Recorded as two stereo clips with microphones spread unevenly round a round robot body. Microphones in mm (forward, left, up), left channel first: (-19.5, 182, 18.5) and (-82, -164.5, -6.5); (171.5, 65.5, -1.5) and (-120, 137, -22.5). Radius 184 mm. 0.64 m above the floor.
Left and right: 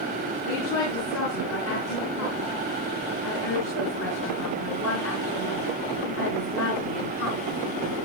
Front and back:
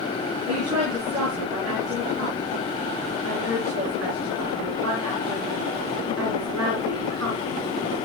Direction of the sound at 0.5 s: 130° left.